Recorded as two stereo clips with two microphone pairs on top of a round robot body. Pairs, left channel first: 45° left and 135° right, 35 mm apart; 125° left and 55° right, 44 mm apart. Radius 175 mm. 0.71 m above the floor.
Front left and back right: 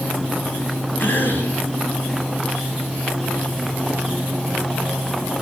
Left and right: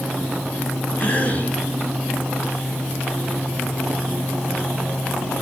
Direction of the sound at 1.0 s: 80° left.